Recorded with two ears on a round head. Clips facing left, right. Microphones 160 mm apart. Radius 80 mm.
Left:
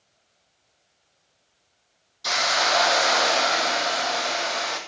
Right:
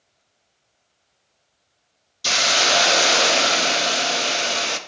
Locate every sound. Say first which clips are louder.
2.2 s a hiss: right 2 dB; 35° right (ahead or behind), 0.6 m